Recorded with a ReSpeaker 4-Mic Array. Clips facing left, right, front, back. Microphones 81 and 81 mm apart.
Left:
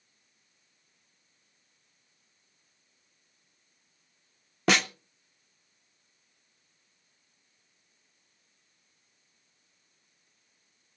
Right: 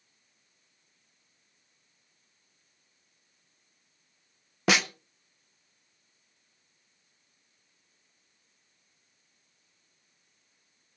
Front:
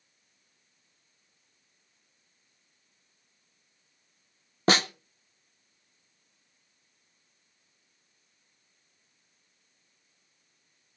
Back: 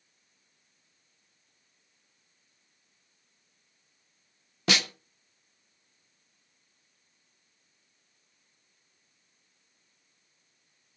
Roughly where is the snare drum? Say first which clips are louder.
Left 1 dB, front 5 dB; ahead.